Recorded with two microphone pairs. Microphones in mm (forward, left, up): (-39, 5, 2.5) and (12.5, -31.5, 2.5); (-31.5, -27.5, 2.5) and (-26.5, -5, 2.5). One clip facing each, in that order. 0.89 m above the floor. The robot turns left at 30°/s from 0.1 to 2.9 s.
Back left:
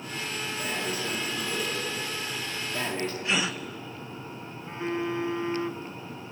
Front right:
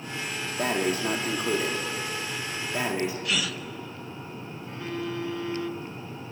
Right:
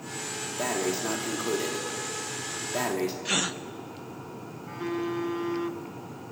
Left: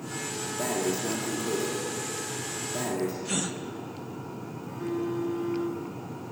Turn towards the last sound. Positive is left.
turn(degrees=-155)